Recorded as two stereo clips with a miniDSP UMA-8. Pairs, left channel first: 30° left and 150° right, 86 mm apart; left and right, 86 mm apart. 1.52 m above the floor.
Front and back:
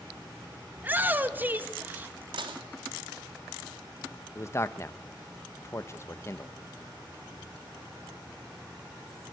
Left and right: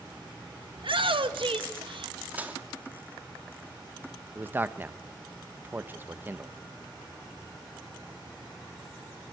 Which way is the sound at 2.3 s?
160° right.